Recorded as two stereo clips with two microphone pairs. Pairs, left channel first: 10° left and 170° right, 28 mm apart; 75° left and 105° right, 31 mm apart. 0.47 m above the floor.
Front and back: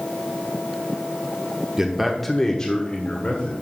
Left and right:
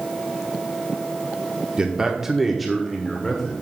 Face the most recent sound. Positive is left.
turn(degrees=0)